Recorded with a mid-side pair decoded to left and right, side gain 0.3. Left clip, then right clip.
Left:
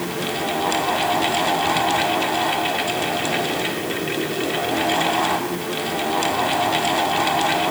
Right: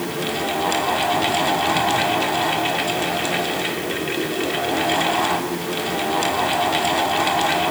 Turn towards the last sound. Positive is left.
turn(degrees=-5)